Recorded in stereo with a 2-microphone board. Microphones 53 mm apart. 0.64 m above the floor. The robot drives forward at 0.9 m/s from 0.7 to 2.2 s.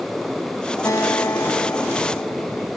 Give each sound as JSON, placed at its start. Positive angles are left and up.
{"t": 0.8, "sound": "a guitar", "side_deg": 80}